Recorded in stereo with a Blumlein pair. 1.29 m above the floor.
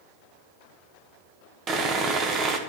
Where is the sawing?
25° right, 1.2 m.